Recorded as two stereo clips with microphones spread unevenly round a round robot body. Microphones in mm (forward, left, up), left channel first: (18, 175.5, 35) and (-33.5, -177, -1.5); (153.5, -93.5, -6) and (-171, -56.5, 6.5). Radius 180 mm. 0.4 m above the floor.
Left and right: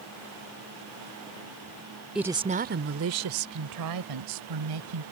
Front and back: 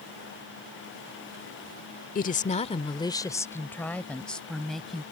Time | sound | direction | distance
2.1 | a woman speaking | 25° right | ?